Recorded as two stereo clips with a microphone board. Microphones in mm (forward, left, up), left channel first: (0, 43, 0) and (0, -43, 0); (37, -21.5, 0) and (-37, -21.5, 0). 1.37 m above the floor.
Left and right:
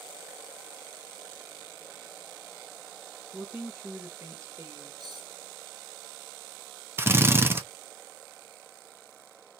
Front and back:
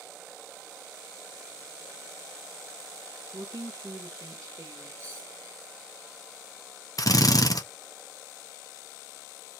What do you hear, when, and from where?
3.3 s a woman speaking: 170° right, 1.6 m; by 4.9 s 145° right, 2 m
5.0 s cutlery clinking: 55° right, 2 m
7.0 s a drill: 30° right, 0.8 m